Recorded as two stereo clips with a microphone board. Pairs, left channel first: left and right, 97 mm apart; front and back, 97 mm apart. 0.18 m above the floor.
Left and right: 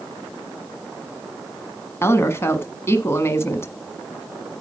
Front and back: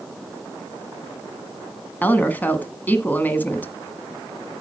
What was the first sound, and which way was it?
A woman speaking, 55° left.